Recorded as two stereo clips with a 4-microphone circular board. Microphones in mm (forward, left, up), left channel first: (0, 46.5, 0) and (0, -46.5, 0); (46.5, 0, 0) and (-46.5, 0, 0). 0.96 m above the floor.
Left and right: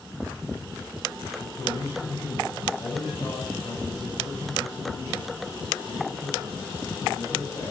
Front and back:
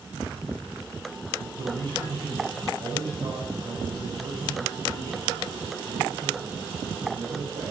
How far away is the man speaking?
About 4 m.